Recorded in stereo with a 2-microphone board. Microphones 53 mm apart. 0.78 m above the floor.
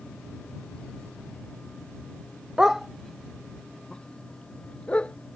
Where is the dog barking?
10° right (ahead or behind); by 5.1 s 25° left (ahead or behind).